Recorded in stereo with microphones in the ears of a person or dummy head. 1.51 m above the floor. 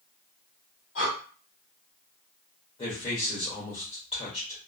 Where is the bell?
No bell in this recording.